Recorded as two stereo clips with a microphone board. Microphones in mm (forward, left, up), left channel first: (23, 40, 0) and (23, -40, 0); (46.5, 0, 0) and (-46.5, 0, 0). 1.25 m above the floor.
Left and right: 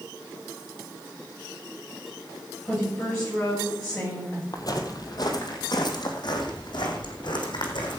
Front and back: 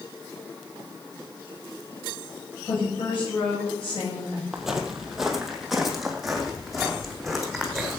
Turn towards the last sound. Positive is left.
turn(degrees=90)